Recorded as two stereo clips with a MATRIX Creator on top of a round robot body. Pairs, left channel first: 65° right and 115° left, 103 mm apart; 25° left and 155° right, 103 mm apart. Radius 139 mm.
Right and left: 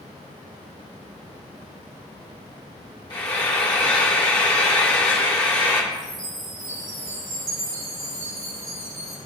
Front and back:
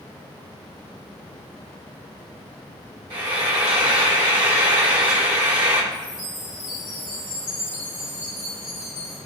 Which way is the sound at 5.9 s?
70° left.